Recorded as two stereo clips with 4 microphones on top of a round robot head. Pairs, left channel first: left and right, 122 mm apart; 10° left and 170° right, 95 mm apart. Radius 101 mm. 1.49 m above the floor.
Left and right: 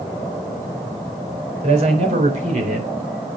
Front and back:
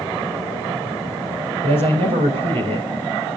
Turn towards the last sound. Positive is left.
turn(degrees=-125)